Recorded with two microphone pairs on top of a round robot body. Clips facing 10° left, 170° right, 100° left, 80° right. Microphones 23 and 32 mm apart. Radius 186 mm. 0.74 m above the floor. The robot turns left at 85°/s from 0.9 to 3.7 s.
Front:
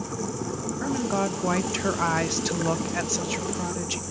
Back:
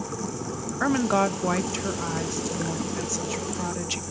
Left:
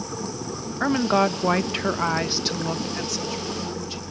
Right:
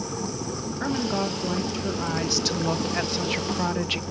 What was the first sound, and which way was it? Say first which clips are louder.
A woman speaking: back 5 dB, left 7 dB; 155° left.